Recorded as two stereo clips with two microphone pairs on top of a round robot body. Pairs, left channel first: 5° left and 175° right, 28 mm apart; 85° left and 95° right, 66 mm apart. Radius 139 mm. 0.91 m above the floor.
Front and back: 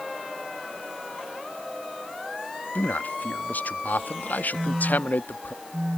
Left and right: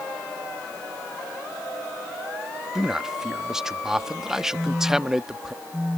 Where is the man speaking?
15° right.